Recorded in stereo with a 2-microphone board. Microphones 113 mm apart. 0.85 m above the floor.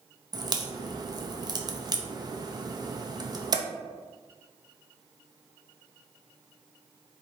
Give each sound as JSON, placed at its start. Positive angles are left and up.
{"t": 0.3, "sound": "a crack", "side_deg": -40, "distance_m": 0.6}